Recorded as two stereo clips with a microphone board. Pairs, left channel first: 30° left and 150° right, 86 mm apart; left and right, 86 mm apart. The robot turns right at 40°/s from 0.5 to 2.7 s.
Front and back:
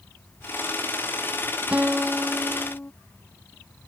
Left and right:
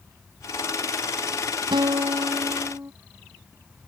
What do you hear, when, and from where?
1.7 s a guitar: 80° right; by 2.9 s 40° right